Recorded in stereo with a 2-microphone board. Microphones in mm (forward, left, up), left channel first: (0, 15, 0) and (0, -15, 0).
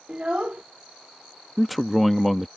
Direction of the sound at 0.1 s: 35° right (ahead or behind).